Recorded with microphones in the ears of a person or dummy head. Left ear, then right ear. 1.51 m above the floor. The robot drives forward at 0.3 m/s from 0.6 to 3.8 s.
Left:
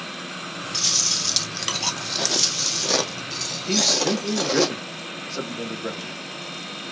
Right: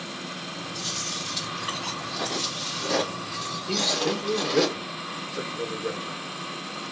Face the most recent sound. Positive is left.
turn(degrees=65)  # may be behind; listen again after turning